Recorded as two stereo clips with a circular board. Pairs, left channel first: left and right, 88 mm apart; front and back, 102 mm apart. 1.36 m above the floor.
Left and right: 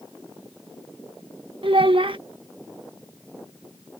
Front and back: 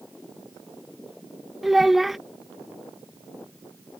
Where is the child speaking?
95° right.